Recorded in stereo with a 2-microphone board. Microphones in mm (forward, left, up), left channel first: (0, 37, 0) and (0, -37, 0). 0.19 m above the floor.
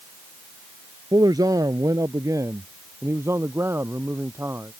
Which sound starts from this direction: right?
A man speaking, at 1.1 s.